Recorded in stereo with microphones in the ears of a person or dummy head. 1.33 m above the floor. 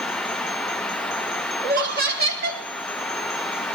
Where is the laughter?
55° right (ahead or behind), 3 m.